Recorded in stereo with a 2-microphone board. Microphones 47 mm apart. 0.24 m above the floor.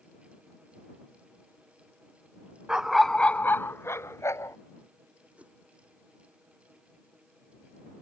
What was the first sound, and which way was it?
A dog barking, 15° right (ahead or behind).